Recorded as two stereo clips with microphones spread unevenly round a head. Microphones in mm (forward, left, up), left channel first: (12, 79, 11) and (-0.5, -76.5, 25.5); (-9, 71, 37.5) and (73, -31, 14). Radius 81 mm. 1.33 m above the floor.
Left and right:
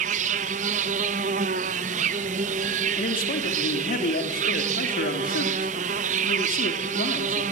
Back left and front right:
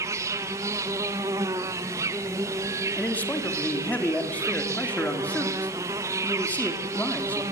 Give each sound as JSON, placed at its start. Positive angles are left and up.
{"t": 0.0, "sound": "an insect", "azimuth_deg": -130, "distance_m": 0.8}
{"t": 3.0, "sound": "a man speaking", "azimuth_deg": 50, "distance_m": 3.0}